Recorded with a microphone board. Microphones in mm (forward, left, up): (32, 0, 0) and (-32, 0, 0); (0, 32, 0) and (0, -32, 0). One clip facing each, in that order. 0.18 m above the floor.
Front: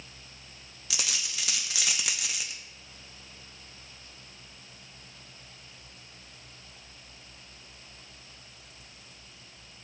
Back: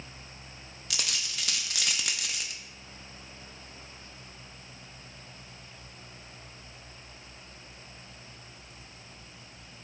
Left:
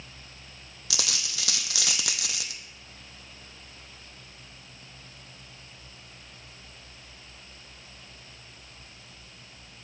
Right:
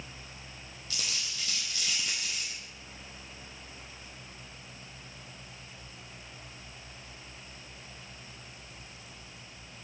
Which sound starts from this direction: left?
A dropped coin, at 0.9 s.